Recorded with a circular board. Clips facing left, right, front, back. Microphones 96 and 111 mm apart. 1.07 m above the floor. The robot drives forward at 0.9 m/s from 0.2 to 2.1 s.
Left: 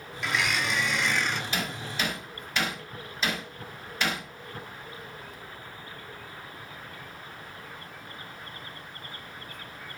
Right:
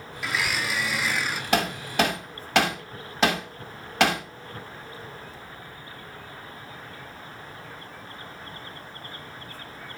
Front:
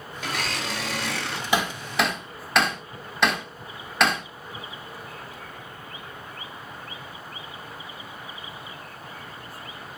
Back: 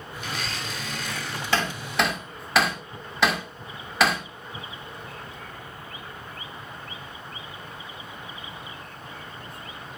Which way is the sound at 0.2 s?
5° right.